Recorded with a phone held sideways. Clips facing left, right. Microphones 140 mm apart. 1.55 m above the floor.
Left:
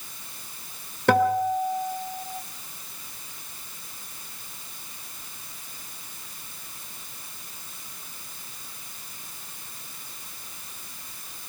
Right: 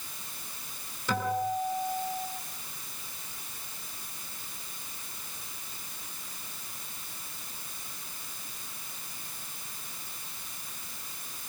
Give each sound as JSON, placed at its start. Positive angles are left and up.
{"t": 1.1, "sound": "a guitar", "side_deg": 70, "distance_m": 3.0}